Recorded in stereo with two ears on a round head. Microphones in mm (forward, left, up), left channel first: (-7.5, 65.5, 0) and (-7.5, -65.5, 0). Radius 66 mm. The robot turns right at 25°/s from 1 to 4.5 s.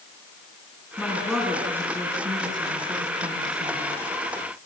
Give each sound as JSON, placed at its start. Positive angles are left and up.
{"t": 1.0, "sound": "a woman speaking", "azimuth_deg": 175, "distance_m": 6.0}